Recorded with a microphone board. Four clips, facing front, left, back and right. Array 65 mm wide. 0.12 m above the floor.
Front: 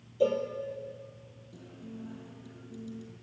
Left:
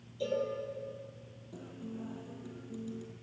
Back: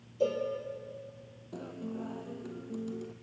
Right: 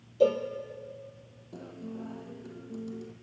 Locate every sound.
0.2 s a cowbell: 80° right, 3.5 m
1.5 s a guitar: 160° right, 2 m